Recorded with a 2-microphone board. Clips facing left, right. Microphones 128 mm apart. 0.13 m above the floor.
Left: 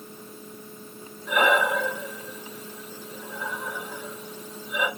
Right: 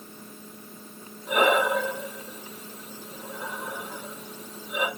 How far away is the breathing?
About 0.9 m.